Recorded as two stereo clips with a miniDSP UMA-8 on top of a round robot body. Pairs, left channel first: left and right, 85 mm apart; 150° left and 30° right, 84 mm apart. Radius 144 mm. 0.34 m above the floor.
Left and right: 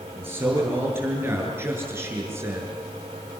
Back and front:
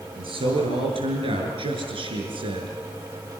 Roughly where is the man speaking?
Ahead right.